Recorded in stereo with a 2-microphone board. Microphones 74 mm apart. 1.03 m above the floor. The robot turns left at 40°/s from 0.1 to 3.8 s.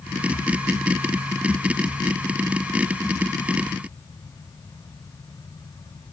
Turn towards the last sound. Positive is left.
No sound to turn to.